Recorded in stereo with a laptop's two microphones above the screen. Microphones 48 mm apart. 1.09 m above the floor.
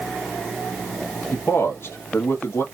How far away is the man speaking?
About 1.1 m.